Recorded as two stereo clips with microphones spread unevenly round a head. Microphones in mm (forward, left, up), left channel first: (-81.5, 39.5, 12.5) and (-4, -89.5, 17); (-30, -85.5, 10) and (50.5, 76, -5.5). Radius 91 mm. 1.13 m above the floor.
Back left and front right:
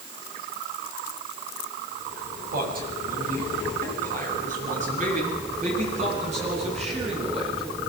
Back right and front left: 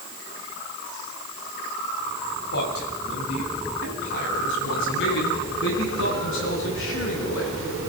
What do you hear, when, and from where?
2.5 s a man speaking: 85° right, 9 m; by 7.9 s 105° right, 15 m